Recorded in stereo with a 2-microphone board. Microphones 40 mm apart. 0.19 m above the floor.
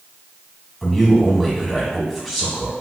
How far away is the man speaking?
About 1.0 m.